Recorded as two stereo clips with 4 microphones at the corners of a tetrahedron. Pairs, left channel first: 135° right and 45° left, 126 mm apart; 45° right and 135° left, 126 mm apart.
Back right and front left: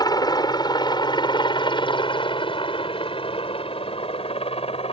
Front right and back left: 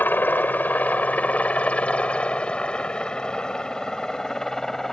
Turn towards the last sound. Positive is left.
turn(degrees=-130)